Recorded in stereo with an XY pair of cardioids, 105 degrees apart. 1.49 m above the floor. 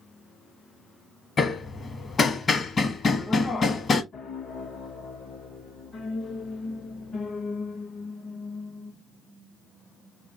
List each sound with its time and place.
1.4 s hammering: 40° left, 0.8 m
4.1 s a piano: 55° left, 0.7 m